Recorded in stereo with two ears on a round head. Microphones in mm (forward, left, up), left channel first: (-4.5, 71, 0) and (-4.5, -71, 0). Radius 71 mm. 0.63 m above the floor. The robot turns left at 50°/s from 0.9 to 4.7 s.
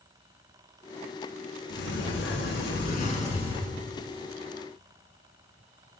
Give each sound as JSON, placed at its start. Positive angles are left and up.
{"t": 1.7, "sound": "a sliding door", "azimuth_deg": 120, "distance_m": 2.5}